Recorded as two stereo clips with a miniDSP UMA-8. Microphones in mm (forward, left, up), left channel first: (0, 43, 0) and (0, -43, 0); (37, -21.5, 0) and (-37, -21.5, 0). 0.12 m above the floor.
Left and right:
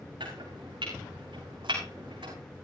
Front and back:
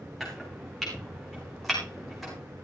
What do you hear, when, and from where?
0.2 s chopping: 90° right, 5.5 m